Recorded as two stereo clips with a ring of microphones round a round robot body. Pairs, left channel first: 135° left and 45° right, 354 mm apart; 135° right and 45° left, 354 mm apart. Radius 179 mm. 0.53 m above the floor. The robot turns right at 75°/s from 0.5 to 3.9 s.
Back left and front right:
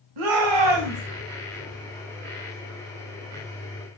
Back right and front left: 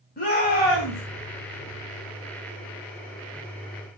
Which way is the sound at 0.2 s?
70° right.